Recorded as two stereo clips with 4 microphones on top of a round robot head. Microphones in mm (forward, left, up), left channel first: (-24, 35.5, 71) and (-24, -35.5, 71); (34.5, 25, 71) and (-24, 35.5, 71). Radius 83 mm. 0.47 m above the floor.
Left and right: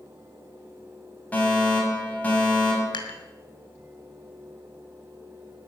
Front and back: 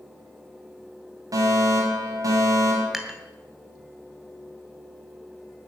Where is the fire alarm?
155° left, 5.5 m.